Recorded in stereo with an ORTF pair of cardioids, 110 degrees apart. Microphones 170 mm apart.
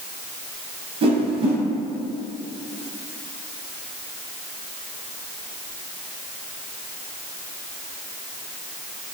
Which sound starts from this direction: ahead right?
A whoosh, at 1.0 s.